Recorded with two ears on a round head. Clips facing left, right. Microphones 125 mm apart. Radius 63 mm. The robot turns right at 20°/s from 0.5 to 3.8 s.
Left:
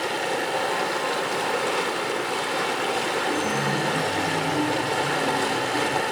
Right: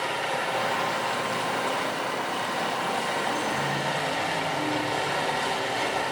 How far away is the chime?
About 5 m.